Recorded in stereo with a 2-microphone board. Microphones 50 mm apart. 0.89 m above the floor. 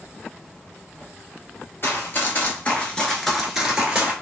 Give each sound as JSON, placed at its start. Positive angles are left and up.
{"t": 1.8, "sound": "running footsteps", "side_deg": 50, "distance_m": 1.2}